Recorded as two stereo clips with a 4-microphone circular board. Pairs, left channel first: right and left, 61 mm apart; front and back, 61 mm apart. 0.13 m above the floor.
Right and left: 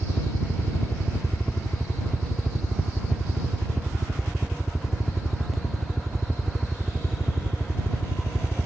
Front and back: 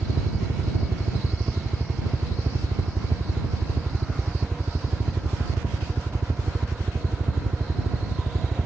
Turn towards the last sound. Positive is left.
turn(degrees=180)